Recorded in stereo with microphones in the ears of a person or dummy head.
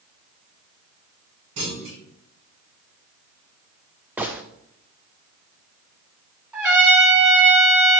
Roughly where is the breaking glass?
I don't hear breaking glass.